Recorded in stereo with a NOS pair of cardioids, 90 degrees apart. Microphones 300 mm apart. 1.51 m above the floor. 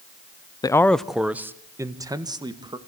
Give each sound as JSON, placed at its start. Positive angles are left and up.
{"t": 0.6, "sound": "a man speaking", "azimuth_deg": 15, "distance_m": 0.6}